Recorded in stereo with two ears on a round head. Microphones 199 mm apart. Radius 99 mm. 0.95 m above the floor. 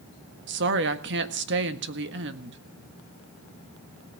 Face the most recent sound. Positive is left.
turn(degrees=-55)  # may be behind; listen again after turning